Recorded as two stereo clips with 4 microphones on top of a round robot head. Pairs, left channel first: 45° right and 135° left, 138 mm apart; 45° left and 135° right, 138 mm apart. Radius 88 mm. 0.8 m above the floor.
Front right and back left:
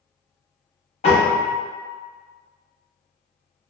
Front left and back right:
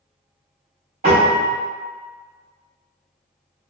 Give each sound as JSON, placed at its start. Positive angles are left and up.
{"t": 1.0, "sound": "a piano", "azimuth_deg": -90, "distance_m": 1.2}